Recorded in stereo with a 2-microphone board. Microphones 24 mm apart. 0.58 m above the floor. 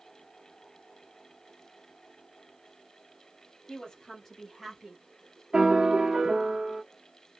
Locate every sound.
3.7 s a woman speaking: 30° left (ahead or behind), 1.4 m; by 5.0 s 20° right (ahead or behind), 1.3 m
5.5 s a piano: 35° right (ahead or behind), 0.8 m